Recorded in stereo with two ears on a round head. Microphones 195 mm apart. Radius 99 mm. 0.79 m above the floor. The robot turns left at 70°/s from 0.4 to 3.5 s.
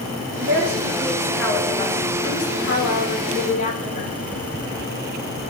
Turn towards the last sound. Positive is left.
turn(degrees=35)